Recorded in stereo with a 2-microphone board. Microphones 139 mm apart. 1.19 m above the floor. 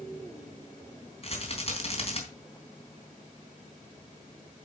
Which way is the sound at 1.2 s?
45° left (ahead or behind).